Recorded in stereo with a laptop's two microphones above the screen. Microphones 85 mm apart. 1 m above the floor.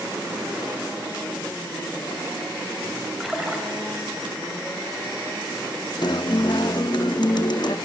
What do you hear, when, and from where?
3.2 s a splash: 5° right (ahead or behind), 3 m
6.0 s a guitar: 60° left (ahead or behind), 0.6 m